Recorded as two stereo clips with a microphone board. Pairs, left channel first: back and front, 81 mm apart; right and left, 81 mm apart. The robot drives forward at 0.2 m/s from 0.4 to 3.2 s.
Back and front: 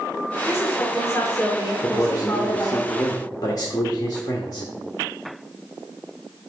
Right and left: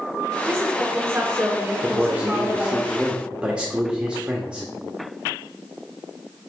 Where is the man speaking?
155° left, 0.9 m; by 4.7 s 165° left, 1.1 m.